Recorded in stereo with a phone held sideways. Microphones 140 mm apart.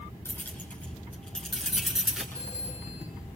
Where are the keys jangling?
15° left (ahead or behind), 7.5 m; by 2.2 s 5° right (ahead or behind), 7 m.